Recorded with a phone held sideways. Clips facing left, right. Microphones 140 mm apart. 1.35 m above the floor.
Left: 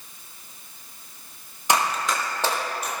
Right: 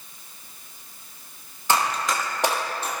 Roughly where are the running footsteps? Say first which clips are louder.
Even; centre.